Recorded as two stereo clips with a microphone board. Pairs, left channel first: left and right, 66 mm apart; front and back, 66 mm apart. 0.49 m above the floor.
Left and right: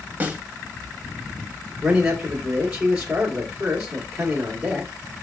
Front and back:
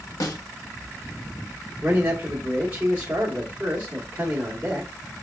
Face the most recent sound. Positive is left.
turn(degrees=-150)